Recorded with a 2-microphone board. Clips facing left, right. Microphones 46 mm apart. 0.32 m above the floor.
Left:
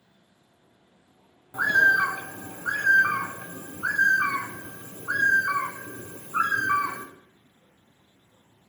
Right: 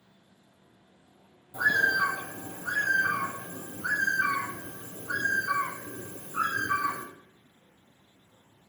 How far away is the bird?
About 0.5 m.